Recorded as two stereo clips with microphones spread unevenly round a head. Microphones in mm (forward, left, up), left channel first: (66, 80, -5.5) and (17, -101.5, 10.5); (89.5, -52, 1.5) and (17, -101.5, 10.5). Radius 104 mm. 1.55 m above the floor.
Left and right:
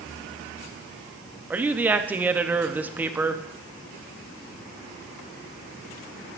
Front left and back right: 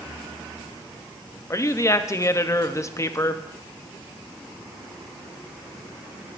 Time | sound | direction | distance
1.5 | a woman speaking | 25° right | 0.8 m